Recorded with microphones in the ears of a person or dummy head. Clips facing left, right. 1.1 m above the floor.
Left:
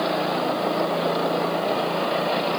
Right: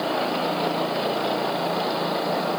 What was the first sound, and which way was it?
Only background noise.